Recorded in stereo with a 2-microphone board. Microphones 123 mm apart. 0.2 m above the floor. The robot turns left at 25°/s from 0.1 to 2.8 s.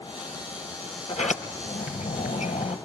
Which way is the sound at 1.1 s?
70° left (ahead or behind).